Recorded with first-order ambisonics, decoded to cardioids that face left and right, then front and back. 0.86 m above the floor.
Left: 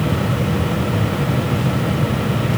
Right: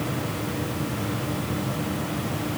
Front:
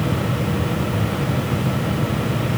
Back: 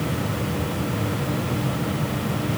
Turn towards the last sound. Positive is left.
No sound to turn to.